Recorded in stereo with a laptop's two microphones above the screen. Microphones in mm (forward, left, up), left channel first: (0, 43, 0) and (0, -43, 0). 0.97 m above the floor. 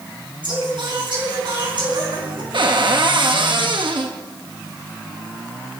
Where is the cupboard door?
65° right (ahead or behind), 1.3 m.